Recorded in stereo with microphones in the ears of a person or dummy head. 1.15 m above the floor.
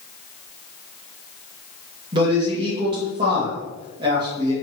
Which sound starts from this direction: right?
A man speaking, at 2.1 s.